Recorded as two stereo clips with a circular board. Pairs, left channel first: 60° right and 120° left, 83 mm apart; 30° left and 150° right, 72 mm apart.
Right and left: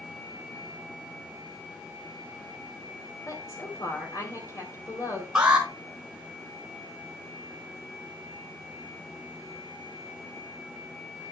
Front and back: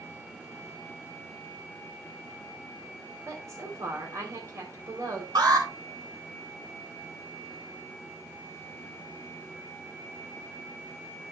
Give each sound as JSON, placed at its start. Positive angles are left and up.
{"t": 3.3, "sound": "a woman speaking", "azimuth_deg": -105, "distance_m": 4.0}
{"t": 5.3, "sound": "an alarm", "azimuth_deg": -160, "distance_m": 3.5}